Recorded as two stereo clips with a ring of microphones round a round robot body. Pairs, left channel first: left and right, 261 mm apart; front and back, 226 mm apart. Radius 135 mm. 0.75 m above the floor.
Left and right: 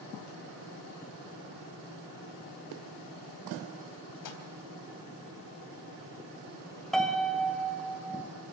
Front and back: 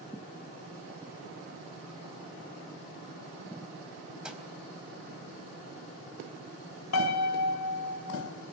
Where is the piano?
Straight ahead, 2.5 m.